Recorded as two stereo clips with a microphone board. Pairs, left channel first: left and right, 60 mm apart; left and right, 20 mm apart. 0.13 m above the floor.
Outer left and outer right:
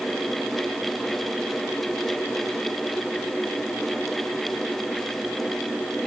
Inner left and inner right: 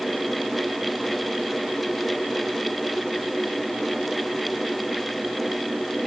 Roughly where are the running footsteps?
I don't hear running footsteps.